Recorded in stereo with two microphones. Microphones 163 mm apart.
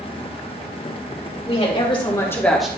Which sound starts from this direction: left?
A woman speaking, at 1.5 s.